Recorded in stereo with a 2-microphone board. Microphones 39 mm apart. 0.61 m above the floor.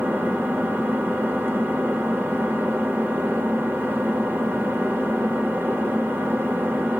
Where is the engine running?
70° right (ahead or behind), 1.1 m.